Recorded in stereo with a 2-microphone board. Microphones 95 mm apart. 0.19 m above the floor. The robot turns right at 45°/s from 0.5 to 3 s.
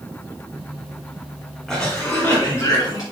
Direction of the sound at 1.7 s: 5° left.